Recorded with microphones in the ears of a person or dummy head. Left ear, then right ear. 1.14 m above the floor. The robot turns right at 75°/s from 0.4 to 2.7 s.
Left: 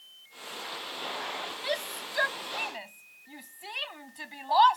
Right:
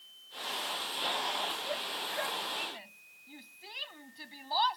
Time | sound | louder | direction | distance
1.6 | a shout | left 2 dB | 65° left (ahead or behind) | ?